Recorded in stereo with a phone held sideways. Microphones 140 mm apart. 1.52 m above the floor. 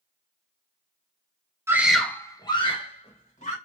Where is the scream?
20° right (ahead or behind), 0.8 m; by 3.5 s 55° left (ahead or behind), 1.8 m.